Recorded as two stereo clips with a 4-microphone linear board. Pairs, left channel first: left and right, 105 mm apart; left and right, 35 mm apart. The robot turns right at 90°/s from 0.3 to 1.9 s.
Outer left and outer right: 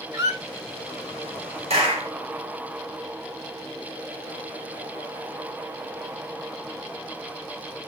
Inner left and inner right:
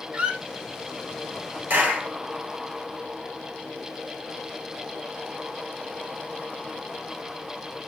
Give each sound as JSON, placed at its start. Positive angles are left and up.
{"t": 0.1, "sound": "a squeak", "side_deg": -35, "distance_m": 1.3}
{"t": 1.7, "sound": "a clap", "side_deg": -70, "distance_m": 4.5}